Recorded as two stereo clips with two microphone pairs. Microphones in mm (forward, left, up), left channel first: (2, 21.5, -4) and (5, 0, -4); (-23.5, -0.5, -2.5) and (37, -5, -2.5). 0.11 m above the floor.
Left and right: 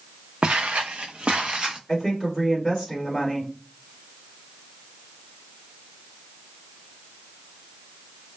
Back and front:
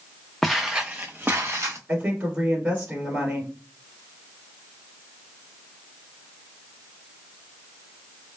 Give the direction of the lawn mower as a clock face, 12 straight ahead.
I don't hear a lawn mower.